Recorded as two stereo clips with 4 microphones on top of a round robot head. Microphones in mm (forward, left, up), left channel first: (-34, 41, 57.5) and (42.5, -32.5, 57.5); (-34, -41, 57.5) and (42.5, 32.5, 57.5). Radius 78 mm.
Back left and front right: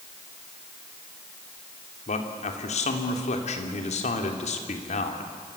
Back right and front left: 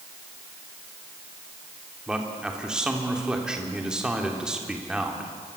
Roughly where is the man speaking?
Behind left.